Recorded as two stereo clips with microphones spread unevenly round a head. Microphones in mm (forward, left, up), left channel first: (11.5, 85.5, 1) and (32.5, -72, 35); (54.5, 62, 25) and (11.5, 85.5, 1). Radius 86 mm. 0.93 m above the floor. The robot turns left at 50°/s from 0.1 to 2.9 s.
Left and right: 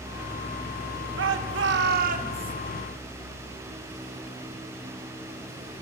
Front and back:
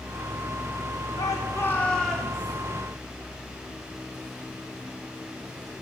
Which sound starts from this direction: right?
A shout, at 1.2 s.